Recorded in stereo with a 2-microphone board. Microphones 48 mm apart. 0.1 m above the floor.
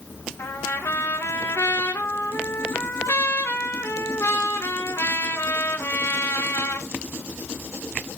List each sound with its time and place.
0.4 s a trumpet: 80° left, 5 m